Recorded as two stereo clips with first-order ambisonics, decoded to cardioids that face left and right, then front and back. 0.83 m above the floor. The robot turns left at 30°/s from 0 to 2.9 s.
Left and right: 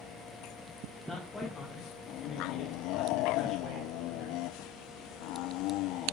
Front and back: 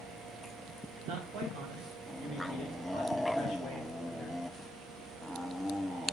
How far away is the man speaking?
About 2 m.